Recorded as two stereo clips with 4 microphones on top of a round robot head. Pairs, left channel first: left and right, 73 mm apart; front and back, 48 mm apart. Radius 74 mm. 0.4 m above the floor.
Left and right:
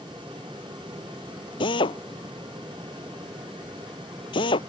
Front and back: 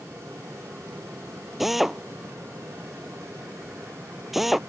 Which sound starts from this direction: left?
A drill, at 1.6 s.